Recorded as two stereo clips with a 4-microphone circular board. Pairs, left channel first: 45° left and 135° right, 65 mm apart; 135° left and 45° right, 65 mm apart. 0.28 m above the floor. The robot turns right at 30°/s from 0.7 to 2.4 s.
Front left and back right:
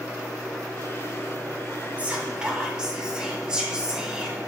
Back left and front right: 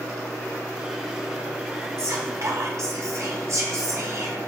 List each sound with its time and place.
2.0 s whispering: 70° right, 1.7 m; by 4.4 s 60° right, 1.7 m